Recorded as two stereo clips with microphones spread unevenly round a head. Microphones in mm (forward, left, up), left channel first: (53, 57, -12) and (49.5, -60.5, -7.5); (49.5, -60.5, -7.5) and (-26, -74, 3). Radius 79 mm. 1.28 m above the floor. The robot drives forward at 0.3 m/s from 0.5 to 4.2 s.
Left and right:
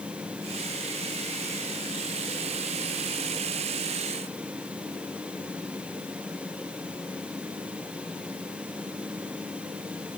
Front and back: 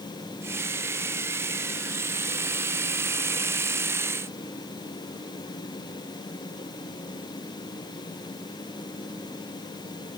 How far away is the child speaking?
I don't hear a child speaking.